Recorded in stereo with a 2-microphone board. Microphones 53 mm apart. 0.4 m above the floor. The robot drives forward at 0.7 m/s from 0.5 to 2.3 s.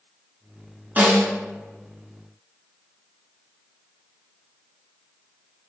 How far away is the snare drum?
About 1.2 m.